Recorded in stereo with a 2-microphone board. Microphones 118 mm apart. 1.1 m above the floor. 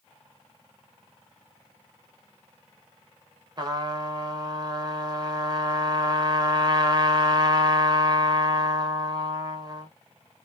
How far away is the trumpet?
About 0.6 m.